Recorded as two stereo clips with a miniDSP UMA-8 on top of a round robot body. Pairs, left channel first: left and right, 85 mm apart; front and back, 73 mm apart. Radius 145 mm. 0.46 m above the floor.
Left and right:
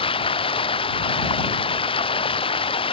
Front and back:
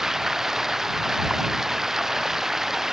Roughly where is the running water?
Left.